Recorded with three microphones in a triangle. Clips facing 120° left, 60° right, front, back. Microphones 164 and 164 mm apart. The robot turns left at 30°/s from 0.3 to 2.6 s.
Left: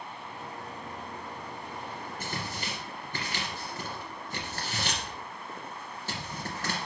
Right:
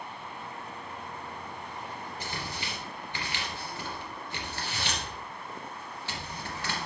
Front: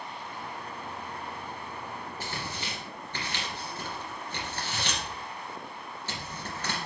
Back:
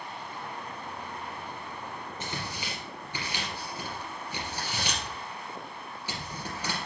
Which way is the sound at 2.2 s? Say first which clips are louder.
Left 2 dB, back 1 dB; 120° left.